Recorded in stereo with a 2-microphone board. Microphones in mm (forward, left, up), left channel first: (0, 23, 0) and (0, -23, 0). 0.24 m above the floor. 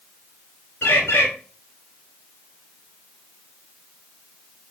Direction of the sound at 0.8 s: 60° left (ahead or behind).